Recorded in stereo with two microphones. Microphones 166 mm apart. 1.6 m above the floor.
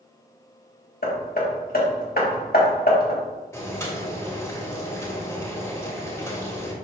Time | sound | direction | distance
1.0 | hammering | 75° left (ahead or behind) | 1.7 m
3.5 | boiling | 20° left (ahead or behind) | 2.5 m